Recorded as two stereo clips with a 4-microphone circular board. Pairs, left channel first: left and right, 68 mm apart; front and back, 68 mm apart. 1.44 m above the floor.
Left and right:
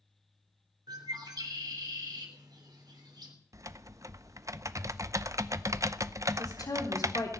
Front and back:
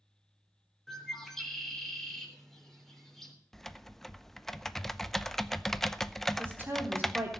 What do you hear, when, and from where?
0.9 s a bird: 85° right, 3.5 m
3.5 s typing on a keyboard: 85° right, 0.6 m
6.4 s a woman speaking: 120° left, 3.5 m